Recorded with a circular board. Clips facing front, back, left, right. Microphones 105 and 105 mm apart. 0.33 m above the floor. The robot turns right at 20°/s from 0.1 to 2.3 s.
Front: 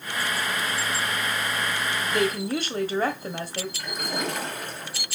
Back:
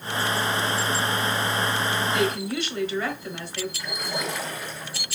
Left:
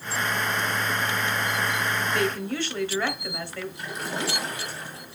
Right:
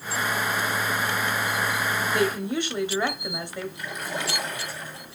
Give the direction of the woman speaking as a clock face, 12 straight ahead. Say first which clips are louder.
Even, right 2 dB; 1 o'clock.